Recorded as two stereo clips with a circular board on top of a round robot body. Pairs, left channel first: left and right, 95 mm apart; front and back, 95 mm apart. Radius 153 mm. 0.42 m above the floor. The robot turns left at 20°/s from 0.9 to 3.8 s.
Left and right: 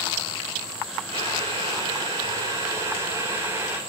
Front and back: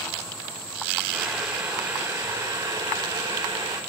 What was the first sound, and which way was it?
Boiling, 95° right.